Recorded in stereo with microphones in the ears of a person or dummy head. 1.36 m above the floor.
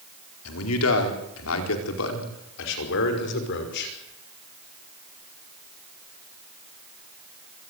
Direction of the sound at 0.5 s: 85° left.